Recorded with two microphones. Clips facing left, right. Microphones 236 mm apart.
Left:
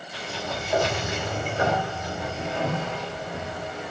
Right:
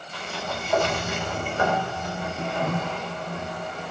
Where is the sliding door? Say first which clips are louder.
Even; 15° left (ahead or behind), 3.5 m.